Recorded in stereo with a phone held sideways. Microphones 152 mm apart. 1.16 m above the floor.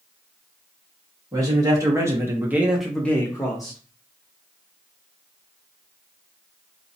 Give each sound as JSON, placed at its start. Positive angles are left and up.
{"t": 1.3, "sound": "a man speaking", "side_deg": -20, "distance_m": 1.4}